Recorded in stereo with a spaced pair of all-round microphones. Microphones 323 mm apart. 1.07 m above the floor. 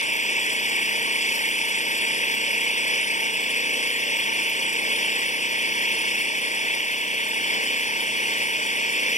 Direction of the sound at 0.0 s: 20° left (ahead or behind).